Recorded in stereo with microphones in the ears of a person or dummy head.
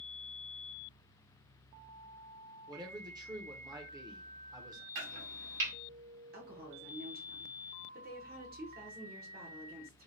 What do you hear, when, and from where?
2.7 s a man speaking: 15° right (ahead or behind), 0.6 m
5.0 s chopping: 65° right (ahead or behind), 1.5 m
6.3 s a woman speaking: 40° right (ahead or behind), 0.9 m